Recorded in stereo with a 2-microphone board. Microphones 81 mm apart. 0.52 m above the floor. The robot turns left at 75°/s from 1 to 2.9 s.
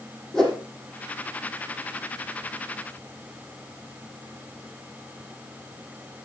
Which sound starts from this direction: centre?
A whoosh, at 0.3 s.